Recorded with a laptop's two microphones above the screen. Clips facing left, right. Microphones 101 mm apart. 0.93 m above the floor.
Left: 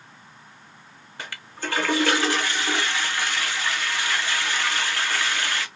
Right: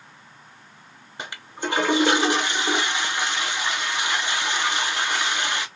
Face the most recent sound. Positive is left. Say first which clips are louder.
# right 3 dB
turn(degrees=-20)  # may be behind; listen again after turning